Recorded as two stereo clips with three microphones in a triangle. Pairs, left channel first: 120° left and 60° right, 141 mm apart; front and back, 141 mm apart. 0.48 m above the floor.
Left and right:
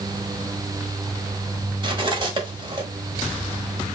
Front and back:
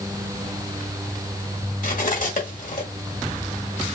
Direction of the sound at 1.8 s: 10° right.